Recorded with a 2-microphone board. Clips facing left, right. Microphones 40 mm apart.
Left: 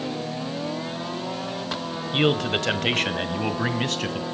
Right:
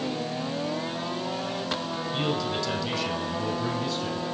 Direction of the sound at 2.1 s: 50° left (ahead or behind).